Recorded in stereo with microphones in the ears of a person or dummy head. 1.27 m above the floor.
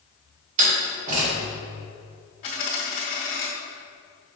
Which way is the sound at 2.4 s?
35° left (ahead or behind).